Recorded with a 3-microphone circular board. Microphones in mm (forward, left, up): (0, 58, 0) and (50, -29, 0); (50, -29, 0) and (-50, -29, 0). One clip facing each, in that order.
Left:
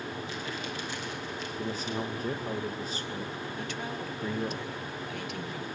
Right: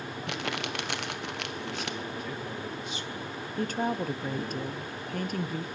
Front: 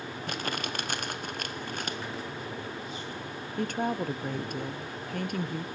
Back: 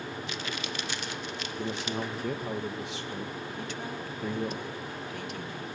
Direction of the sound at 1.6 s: 170° left.